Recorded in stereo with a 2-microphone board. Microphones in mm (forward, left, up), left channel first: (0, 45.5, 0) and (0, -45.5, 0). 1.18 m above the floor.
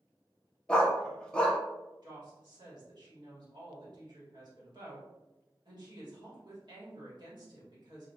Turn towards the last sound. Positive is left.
turn(degrees=-55)  # may be behind; listen again after turning